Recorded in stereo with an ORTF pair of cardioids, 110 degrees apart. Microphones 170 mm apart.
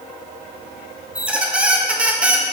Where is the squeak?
5° right, 0.8 m.